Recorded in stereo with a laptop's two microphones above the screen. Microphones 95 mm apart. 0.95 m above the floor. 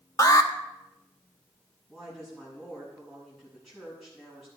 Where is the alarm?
35° left (ahead or behind), 1.0 m.